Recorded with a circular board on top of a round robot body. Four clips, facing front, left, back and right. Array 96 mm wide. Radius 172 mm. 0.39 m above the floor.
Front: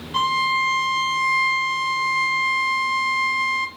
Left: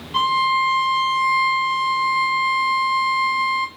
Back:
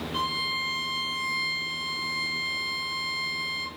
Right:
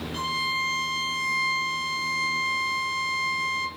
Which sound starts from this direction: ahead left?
A violin, at 0.1 s.